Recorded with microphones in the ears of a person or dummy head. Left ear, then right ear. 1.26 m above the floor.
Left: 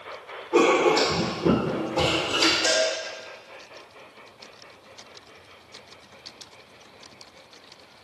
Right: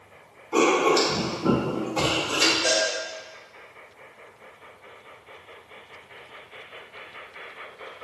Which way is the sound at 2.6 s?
5° left (ahead or behind).